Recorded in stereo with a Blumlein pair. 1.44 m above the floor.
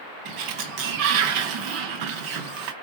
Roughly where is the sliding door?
Ahead right.